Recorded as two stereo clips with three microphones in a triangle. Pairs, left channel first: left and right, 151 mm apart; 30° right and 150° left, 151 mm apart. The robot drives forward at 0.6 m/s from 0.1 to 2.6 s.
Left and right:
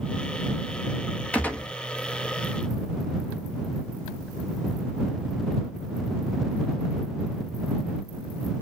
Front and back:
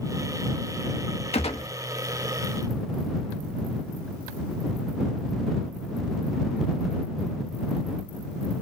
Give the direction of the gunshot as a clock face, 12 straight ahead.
12 o'clock.